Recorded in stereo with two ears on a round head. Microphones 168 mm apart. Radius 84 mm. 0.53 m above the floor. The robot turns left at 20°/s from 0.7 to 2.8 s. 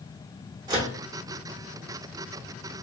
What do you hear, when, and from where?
0.7 s a microwave: 20° right (ahead or behind), 0.8 m